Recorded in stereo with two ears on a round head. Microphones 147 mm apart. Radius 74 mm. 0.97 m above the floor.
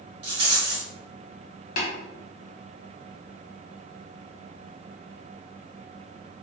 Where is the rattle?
35° right (ahead or behind), 1.2 m.